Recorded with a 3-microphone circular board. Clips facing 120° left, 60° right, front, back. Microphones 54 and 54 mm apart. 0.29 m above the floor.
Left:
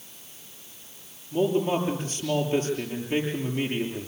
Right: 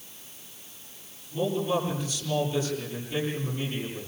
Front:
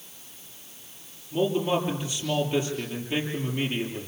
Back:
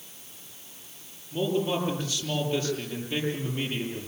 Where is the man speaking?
80° left, 9 m.